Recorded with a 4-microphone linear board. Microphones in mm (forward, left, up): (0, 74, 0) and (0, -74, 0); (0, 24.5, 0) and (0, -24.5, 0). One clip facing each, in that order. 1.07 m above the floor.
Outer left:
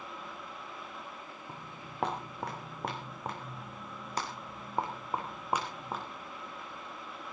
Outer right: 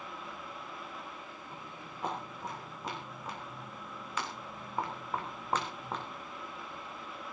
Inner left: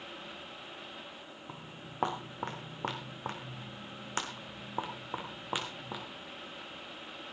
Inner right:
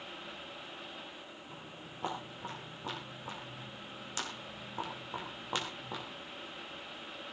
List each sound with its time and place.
1.5 s footsteps: 75° left (ahead or behind), 4.5 m; by 6.0 s 5° left (ahead or behind), 4 m